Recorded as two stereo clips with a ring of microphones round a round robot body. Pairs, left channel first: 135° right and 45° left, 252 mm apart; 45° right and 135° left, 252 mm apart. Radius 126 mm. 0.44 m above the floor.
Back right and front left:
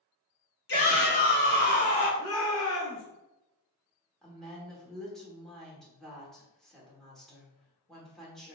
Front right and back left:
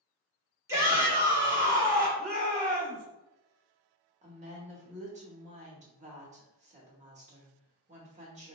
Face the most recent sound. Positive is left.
turn(degrees=140)